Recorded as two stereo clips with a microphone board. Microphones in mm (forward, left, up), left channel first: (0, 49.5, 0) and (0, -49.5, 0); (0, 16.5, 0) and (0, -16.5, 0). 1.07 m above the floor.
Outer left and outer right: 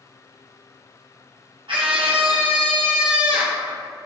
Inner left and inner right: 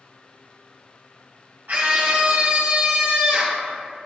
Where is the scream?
60° right (ahead or behind), 0.8 m.